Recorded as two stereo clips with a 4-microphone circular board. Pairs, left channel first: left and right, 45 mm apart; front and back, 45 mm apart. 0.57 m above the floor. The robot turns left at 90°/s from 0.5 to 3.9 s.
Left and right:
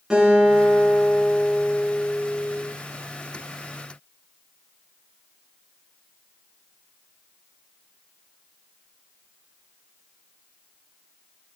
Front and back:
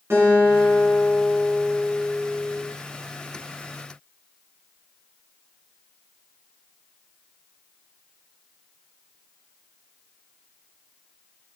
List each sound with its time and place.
0.1 s a guitar: 165° right, 7.5 m; by 2.6 s 5° left, 7.5 m